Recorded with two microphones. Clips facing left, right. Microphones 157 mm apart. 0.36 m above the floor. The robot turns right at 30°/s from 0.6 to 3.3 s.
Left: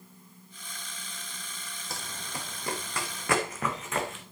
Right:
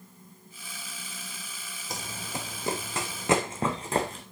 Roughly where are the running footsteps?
Centre.